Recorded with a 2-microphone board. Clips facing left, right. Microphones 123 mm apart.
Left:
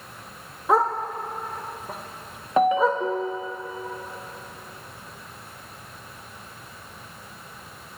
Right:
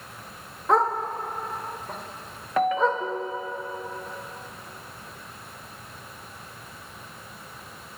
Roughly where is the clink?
No clink in this recording.